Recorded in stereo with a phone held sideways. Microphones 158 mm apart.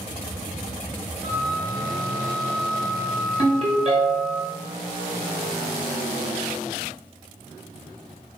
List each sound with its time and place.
1.2 s a flute: 35° right (ahead or behind), 0.6 m
3.4 s a ringtone: 40° right (ahead or behind), 1.2 m